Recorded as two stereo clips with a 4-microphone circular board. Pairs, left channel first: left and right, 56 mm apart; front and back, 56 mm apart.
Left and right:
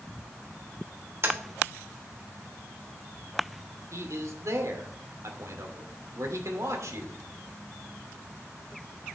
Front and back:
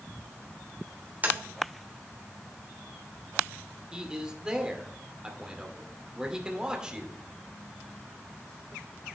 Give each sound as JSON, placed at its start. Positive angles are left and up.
{"t": 1.2, "sound": "tapping", "azimuth_deg": -125, "distance_m": 3.0}
{"t": 3.9, "sound": "a man speaking", "azimuth_deg": -105, "distance_m": 2.0}